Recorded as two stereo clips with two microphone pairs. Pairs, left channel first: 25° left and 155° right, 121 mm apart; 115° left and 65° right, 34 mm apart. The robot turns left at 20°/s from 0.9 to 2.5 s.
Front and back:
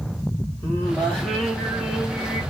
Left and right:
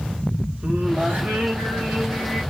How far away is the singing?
About 1.8 m.